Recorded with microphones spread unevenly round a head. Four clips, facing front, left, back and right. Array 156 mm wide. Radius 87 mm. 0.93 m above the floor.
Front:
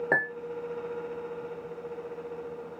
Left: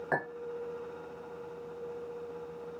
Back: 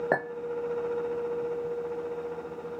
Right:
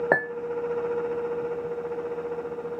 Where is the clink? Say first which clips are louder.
Right 8 dB, even; 105° right, 0.8 m.